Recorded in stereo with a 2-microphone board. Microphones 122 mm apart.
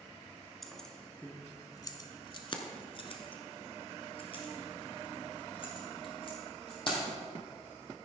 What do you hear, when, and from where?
0.6 s keys jangling: centre (ahead or behind), 1.2 m; by 7.0 s 40° left (ahead or behind), 4 m